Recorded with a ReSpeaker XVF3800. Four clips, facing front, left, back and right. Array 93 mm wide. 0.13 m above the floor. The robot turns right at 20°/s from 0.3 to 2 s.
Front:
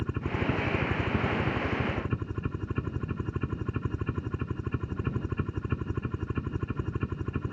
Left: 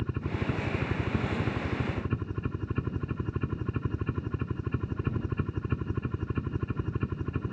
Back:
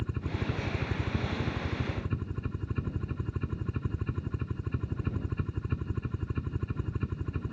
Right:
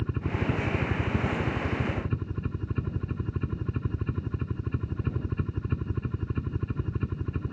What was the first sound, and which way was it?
A helicopter, 5° right.